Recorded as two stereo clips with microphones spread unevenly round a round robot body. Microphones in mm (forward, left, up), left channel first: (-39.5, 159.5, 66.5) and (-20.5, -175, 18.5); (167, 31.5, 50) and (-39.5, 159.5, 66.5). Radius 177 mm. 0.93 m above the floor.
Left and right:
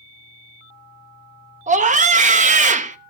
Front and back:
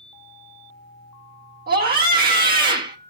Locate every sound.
1.7 s a scream: 155° right, 0.7 m